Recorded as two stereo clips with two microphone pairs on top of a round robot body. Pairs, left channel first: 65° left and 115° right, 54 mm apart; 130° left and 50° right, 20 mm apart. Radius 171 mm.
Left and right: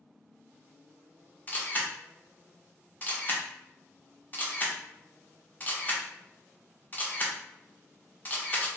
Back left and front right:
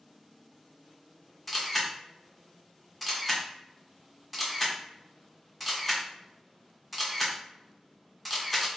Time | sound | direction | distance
1.5 | a camera shutter | 50° left | 1.0 m